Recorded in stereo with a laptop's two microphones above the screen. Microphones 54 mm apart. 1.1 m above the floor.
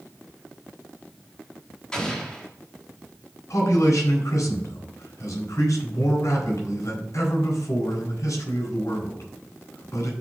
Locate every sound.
1.9 s an explosion: 15° left (ahead or behind), 2 m
3.5 s a man speaking: 80° left, 4.5 m